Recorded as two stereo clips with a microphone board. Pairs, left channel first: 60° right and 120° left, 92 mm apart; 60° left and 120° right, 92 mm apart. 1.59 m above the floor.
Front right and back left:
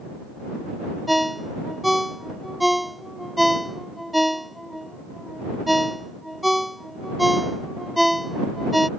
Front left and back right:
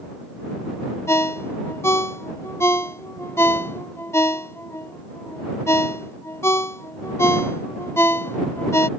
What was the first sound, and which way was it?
A ringtone, 30° left.